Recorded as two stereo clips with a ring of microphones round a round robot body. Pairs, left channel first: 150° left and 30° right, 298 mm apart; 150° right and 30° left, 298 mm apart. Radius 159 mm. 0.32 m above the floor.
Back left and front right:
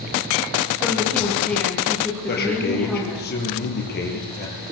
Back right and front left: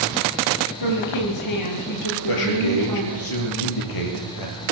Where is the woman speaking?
125° right, 7 m.